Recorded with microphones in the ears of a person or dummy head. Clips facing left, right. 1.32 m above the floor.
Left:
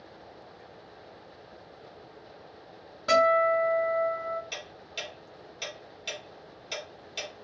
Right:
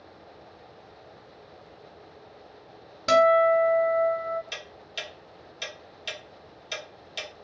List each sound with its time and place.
3.1 s a guitar: 45° right (ahead or behind), 1.1 m
4.5 s ticking: 10° right (ahead or behind), 1.0 m